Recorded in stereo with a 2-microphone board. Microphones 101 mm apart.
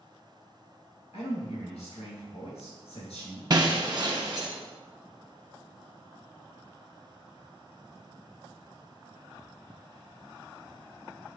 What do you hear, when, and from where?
1.1 s a man speaking: 85° left, 2.5 m
3.5 s breaking glass: 45° right (ahead or behind), 1.2 m